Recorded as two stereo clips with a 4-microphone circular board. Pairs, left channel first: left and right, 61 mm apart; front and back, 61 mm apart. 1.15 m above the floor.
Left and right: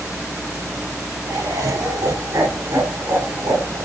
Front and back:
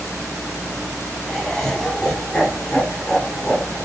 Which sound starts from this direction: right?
Laughter, at 1.3 s.